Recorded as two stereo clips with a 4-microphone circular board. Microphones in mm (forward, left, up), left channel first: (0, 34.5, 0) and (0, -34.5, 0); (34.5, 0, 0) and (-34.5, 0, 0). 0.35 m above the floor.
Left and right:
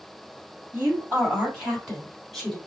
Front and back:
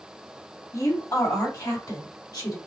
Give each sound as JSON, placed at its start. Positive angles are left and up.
{"t": 0.7, "sound": "a woman speaking", "azimuth_deg": -35, "distance_m": 2.5}